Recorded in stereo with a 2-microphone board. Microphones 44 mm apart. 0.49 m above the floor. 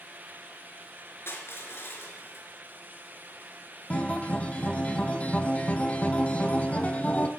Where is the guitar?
35° left (ahead or behind), 1.8 m.